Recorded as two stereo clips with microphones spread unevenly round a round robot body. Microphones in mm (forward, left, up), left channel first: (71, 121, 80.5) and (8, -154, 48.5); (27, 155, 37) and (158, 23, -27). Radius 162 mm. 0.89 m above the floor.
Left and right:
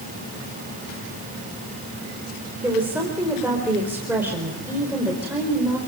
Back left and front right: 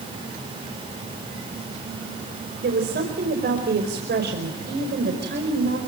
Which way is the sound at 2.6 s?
20° right.